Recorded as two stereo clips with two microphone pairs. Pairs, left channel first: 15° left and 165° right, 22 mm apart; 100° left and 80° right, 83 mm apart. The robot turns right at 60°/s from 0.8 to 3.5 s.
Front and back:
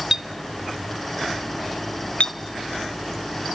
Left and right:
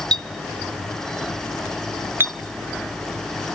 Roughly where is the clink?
Right.